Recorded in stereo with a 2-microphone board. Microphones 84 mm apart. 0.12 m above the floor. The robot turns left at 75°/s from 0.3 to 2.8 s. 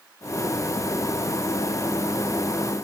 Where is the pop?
I don't hear a pop.